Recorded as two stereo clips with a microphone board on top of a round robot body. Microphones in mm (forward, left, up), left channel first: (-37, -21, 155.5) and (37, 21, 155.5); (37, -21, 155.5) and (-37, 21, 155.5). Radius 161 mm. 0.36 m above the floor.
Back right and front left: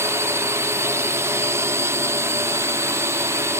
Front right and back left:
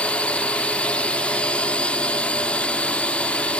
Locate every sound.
0.0 s a drone: 35° left